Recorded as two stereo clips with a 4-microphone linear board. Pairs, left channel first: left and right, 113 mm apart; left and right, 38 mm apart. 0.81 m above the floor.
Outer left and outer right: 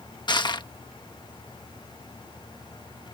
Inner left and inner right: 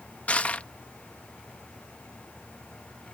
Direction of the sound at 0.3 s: 40° left (ahead or behind).